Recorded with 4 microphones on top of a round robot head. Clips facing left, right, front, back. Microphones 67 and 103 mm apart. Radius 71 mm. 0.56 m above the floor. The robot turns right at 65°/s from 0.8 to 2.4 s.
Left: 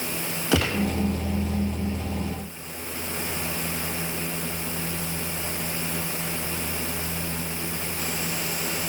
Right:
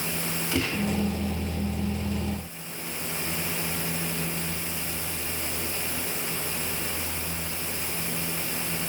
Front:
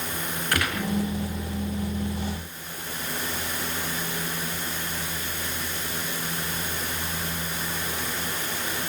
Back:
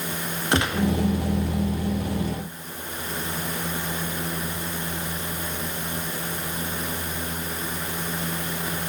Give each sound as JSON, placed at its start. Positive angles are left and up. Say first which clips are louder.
{"t": 0.5, "sound": "a gunshot", "louder": "left 5 dB, back 5 dB", "azimuth_deg": 115, "distance_m": 1.6}